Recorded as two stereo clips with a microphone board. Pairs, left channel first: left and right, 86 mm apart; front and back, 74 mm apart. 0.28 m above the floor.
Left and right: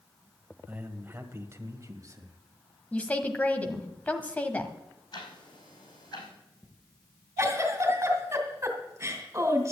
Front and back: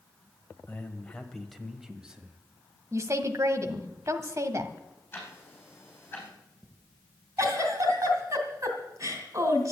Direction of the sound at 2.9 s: 155° left.